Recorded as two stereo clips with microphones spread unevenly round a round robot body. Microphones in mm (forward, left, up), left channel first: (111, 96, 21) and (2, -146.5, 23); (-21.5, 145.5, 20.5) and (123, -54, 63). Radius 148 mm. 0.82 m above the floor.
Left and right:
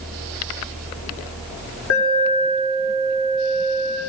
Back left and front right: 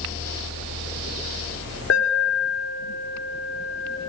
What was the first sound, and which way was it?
An alarm, 100° left.